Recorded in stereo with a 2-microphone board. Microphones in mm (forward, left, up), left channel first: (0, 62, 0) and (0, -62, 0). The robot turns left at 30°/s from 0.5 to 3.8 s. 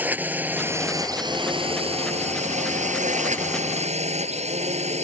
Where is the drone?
15° right; by 5.0 s 115° right.